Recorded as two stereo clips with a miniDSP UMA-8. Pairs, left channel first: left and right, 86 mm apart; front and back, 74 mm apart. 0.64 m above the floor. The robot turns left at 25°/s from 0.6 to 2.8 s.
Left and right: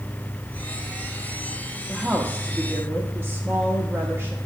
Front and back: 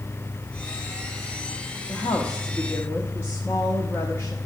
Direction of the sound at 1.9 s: 15° right.